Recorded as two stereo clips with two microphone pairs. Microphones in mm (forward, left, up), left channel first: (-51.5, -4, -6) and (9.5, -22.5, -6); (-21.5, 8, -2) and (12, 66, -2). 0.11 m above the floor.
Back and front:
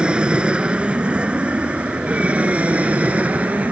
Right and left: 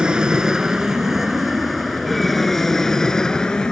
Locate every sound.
0.0 s an aircraft: 15° left; by 3.7 s 55° right